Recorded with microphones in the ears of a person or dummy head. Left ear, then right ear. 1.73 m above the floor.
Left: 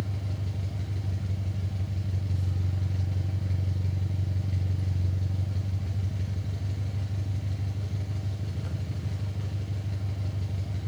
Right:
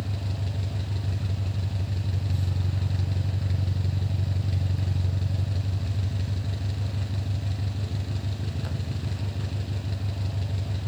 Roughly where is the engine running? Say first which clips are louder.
Right 2 dB; right.